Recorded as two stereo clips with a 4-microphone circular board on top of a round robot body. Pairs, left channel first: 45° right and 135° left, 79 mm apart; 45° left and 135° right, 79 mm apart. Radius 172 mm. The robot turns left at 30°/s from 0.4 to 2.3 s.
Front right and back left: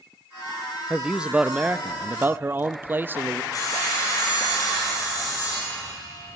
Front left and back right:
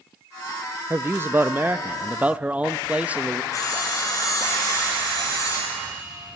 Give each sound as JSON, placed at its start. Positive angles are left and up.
{"t": 0.9, "sound": "a man speaking", "azimuth_deg": -150, "distance_m": 0.8}
{"t": 3.5, "sound": "sawing", "azimuth_deg": -5, "distance_m": 6.0}